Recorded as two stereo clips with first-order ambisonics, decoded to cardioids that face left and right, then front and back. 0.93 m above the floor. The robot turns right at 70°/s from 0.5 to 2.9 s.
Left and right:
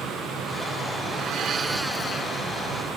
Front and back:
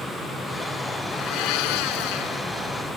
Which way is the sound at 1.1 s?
55° right.